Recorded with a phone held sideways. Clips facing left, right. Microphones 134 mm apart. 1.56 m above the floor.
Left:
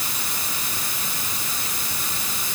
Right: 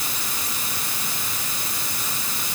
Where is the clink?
I don't hear a clink.